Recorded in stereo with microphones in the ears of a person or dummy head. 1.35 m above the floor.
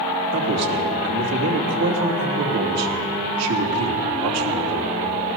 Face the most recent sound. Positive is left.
turn(degrees=-85)